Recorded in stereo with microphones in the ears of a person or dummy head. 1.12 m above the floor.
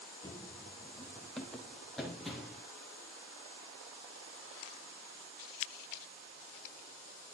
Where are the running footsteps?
20° left (ahead or behind), 1.2 m; by 2.6 s 5° right (ahead or behind), 2.5 m.